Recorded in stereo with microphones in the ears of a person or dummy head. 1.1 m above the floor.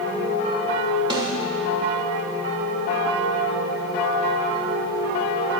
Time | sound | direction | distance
1.1 | a snare drum | 25° right (ahead or behind) | 1.9 m